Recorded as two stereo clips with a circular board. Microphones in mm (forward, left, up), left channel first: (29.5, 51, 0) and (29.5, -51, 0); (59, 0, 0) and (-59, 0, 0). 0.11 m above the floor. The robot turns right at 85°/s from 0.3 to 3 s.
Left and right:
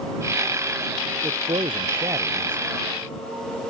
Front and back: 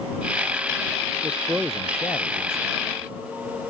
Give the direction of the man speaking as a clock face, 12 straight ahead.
4 o'clock.